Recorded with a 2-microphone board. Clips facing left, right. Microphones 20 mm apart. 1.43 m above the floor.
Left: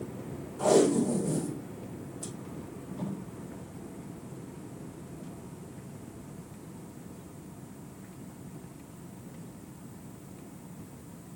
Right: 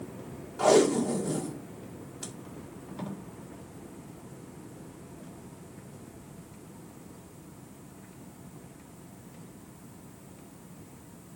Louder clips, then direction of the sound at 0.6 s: Right 1 dB; 45° right (ahead or behind).